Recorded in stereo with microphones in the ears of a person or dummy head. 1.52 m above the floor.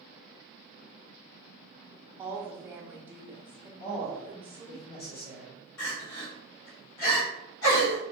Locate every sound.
2.2 s a woman speaking: 10° right (ahead or behind), 0.7 m
3.8 s a man speaking: 55° left (ahead or behind), 1.2 m
5.8 s crying: 85° left, 1.3 m